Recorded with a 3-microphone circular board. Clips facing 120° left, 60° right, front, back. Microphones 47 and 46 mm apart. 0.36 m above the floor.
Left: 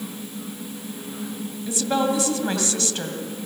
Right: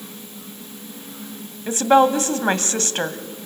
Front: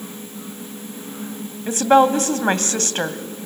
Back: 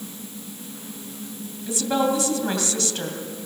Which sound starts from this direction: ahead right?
A woman speaking, at 1.7 s.